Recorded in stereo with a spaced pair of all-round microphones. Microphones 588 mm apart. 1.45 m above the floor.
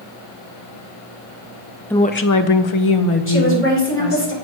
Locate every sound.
1.9 s a woman speaking: 5° left (ahead or behind), 0.5 m; by 4.3 s 65° left (ahead or behind), 1.5 m
3.3 s a woman speaking: 20° left (ahead or behind), 3 m